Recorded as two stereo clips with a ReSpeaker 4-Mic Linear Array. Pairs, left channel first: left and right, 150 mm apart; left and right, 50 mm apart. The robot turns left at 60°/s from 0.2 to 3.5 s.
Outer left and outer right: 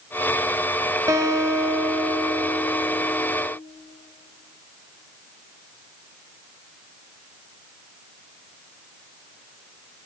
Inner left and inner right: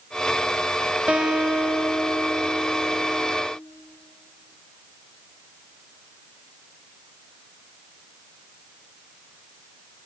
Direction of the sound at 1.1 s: 20° right (ahead or behind).